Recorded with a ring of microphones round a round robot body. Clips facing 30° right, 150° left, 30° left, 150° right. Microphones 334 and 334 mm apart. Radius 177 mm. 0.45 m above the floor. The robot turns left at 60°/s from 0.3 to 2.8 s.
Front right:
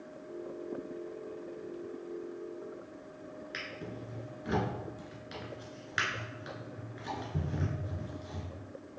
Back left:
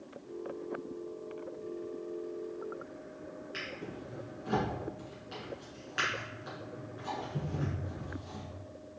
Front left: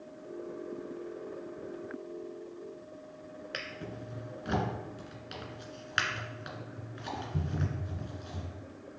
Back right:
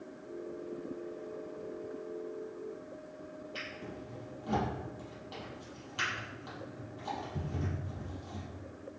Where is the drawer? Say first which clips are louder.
Even, front left 3 dB; 35° left, 1.9 m.